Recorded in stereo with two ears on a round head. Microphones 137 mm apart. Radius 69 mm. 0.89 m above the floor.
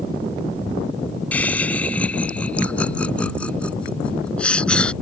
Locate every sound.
1.3 s laughter: 10° left (ahead or behind)